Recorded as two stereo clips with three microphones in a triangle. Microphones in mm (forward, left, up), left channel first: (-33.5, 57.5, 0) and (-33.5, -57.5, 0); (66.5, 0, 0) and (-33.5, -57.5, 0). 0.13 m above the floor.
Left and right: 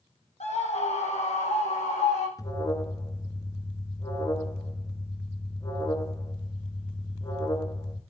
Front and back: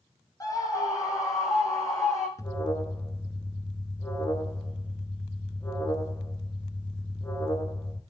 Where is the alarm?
65° left, 1.6 m.